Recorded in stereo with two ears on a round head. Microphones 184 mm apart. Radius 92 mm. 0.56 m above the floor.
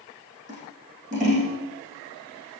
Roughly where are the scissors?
Right.